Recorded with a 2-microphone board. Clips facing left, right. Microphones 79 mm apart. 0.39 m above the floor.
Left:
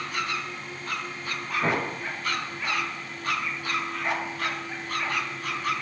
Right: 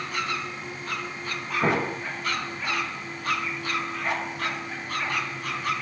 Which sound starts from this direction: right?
An explosion, at 1.6 s.